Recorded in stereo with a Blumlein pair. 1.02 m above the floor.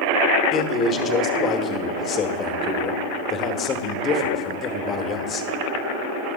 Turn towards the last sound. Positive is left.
turn(degrees=25)